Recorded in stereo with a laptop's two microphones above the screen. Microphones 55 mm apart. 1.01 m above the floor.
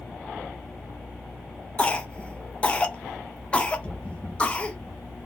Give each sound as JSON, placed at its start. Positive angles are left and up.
{"t": 1.8, "sound": "a cough", "side_deg": 20, "distance_m": 0.6}